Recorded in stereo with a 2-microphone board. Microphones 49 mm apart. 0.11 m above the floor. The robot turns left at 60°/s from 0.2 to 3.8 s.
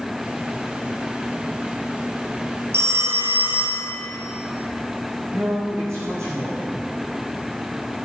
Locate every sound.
2.7 s a phone ringing: 95° right, 2 m; by 4.0 s 160° right, 2 m
5.3 s a man speaking: 70° right (ahead or behind), 6 m